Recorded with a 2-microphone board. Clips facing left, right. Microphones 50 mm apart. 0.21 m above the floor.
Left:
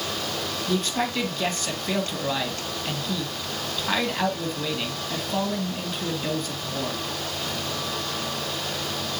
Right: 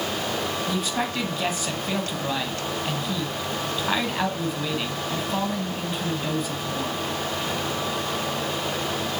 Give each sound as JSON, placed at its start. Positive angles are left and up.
{"t": 0.7, "sound": "a man speaking", "side_deg": -10, "distance_m": 1.5}